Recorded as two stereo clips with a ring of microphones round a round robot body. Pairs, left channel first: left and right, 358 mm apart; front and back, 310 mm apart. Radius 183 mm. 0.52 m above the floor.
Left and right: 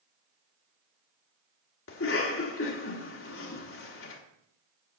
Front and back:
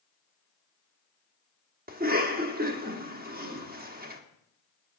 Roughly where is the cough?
Behind left.